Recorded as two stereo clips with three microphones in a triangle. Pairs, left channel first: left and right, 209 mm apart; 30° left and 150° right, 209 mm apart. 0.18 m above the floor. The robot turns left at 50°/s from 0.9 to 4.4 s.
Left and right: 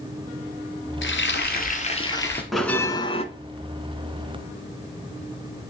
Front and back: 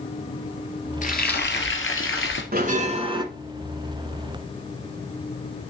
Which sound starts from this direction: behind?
A bell, at 2.5 s.